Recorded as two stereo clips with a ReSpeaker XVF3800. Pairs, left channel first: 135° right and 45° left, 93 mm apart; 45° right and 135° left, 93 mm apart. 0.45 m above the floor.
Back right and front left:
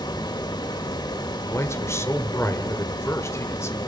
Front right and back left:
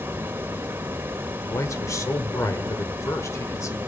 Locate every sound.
0.0 s running water: 160° right, 1.4 m
1.4 s a man speaking: 85° right, 1.8 m